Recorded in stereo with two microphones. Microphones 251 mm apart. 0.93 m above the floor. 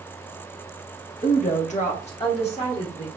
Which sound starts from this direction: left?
A woman speaking, at 1.2 s.